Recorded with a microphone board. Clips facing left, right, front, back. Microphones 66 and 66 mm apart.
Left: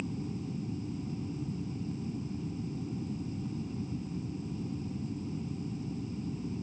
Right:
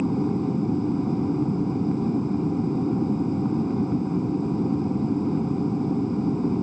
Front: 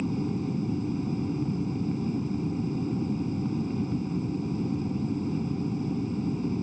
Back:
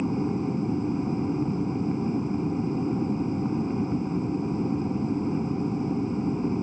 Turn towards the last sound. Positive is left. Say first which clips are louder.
# right 14 dB, back 3 dB
turn(degrees=-120)